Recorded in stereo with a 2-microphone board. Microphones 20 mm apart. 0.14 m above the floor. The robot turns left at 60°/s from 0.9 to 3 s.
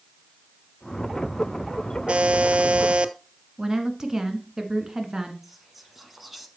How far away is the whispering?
About 1.2 m.